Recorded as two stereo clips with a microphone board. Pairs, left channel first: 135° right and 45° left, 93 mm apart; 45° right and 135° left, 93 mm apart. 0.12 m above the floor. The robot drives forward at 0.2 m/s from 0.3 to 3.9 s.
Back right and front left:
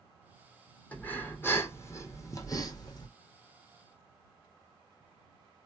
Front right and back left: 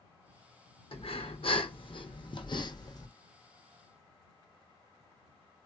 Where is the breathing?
60° right, 0.8 m; by 3.1 s 95° right, 0.7 m.